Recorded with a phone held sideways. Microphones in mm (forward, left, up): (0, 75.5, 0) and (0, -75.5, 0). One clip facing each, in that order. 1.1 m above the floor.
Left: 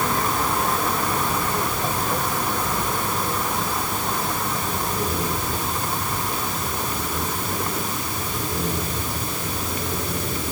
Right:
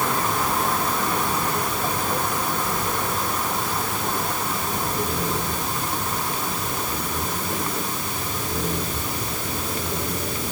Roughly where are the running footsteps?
No running footsteps in this recording.